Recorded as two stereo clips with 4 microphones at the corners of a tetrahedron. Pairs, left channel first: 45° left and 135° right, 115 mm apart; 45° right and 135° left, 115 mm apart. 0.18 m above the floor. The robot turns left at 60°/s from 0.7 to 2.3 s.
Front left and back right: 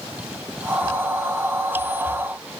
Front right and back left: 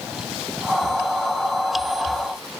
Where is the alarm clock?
No alarm clock in this recording.